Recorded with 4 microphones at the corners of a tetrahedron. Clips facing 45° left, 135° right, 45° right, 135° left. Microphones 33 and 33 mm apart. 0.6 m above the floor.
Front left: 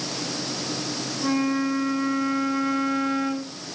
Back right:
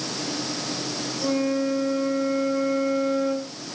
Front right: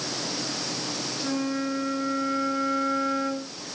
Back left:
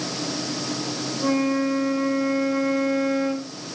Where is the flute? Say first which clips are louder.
Even, back left 7 dB; 110° left, 1.9 m.